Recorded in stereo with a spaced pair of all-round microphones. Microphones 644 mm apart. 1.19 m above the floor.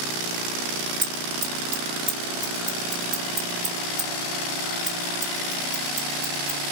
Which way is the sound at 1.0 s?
50° right (ahead or behind).